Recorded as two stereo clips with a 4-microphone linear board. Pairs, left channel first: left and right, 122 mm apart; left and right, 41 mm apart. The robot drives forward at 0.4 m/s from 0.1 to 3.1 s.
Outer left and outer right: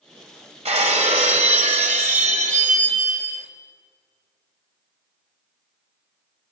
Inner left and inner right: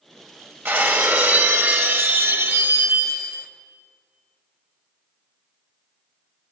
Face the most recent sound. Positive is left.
turn(degrees=-80)